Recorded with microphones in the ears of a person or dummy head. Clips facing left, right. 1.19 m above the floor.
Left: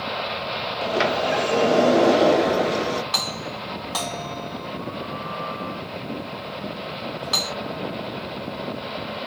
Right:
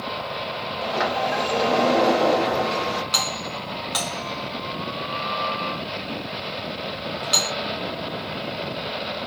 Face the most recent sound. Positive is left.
turn(degrees=-15)  # may be behind; listen again after turning